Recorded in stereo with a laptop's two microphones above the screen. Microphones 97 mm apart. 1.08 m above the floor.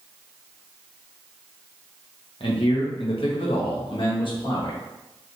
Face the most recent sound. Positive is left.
turn(degrees=50)  # may be behind; listen again after turning